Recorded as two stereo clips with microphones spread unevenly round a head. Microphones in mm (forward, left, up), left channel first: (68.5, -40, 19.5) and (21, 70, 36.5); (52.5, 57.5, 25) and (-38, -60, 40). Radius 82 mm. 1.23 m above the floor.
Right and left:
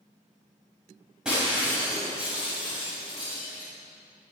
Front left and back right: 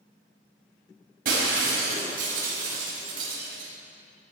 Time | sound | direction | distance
1.2 | breaking glass | 160° right | 5.5 m